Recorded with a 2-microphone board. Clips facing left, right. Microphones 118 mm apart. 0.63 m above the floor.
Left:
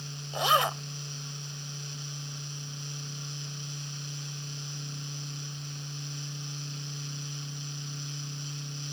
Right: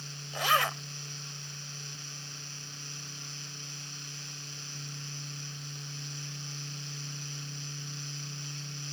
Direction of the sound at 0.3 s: 20° left (ahead or behind).